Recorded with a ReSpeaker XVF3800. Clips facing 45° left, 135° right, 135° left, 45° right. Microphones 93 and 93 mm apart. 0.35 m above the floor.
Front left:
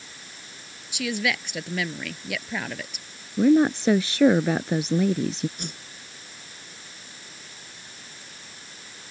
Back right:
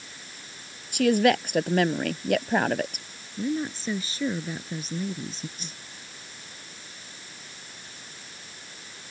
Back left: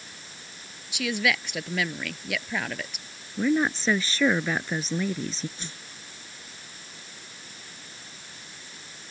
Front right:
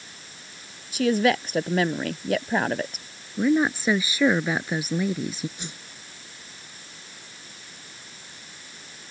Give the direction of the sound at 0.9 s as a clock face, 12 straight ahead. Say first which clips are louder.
Back right 8 dB, front right 7 dB; 3 o'clock.